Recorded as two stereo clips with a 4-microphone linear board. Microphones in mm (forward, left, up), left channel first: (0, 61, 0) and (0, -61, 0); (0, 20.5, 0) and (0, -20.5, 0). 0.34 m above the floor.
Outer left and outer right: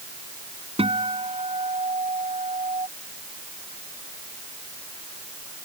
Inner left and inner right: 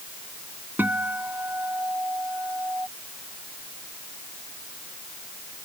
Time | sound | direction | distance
0.8 | a guitar | 55° right (ahead or behind) | ?